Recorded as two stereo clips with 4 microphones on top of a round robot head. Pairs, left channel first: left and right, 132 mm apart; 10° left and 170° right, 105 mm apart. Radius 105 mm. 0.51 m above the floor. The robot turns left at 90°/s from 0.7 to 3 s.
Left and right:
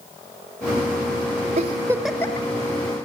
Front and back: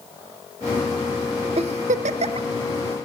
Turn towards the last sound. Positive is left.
turn(degrees=95)